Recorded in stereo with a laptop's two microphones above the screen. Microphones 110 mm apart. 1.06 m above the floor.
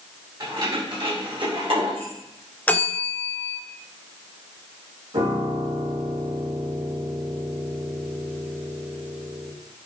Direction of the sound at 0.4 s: 45° right (ahead or behind).